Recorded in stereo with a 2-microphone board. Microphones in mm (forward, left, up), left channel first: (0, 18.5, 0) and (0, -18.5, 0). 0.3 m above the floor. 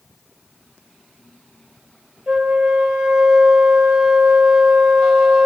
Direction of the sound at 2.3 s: 20° right (ahead or behind).